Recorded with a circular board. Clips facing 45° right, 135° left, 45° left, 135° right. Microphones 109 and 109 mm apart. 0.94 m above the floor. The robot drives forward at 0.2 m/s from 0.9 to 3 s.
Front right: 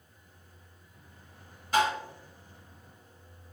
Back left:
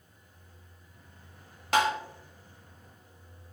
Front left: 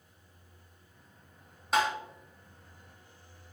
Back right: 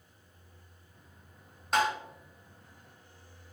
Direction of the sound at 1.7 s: 135° left.